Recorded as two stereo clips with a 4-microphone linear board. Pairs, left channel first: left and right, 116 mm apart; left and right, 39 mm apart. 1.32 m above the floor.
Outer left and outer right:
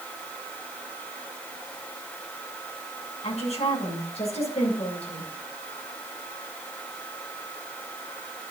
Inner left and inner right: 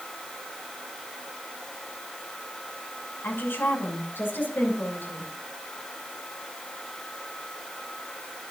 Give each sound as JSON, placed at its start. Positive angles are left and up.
{"t": 3.2, "sound": "a woman speaking", "side_deg": 65, "distance_m": 6.5}